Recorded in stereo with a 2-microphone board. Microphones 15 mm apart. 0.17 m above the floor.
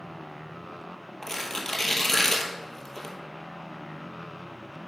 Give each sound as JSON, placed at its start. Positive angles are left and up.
{"t": 1.2, "sound": "tearing paper", "side_deg": 25, "distance_m": 1.0}